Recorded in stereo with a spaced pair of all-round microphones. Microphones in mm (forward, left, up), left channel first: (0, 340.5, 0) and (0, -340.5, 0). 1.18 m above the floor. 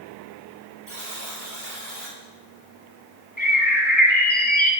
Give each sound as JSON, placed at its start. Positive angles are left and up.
{"t": 0.9, "sound": "a buzzer", "side_deg": -65, "distance_m": 4.5}
{"t": 3.4, "sound": "a bird", "side_deg": 15, "distance_m": 1.6}